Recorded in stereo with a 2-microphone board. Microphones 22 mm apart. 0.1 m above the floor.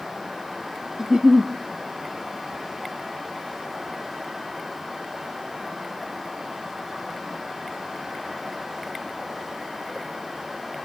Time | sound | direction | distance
1.0 | a giggle | 30° right (ahead or behind) | 0.7 m